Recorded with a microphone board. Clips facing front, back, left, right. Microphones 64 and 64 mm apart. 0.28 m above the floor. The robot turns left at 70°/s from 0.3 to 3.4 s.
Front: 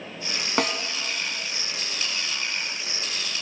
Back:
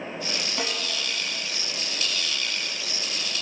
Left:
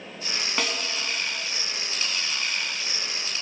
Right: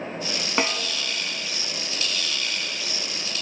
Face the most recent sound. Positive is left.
turn(degrees=140)